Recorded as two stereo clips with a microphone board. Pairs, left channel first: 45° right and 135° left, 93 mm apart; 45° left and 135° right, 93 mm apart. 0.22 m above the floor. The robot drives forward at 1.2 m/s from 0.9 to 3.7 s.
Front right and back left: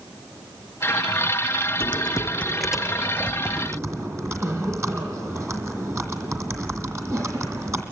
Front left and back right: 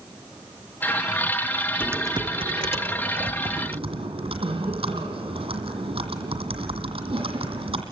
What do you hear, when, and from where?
1.8 s typing on a keyboard: 60° right, 0.7 m; by 7.8 s 160° right, 2 m